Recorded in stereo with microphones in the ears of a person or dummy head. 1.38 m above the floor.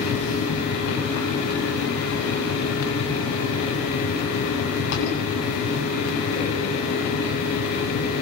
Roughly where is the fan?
Left.